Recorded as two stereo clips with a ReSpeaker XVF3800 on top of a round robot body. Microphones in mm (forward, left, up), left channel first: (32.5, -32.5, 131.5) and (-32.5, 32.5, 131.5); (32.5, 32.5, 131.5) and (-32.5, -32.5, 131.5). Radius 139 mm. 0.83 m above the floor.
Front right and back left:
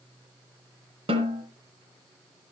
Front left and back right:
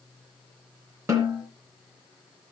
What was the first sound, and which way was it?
A snare drum, 165° left.